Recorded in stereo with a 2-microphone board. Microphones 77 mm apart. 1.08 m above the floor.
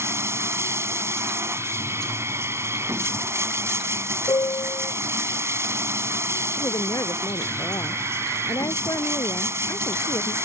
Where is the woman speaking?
45° left (ahead or behind).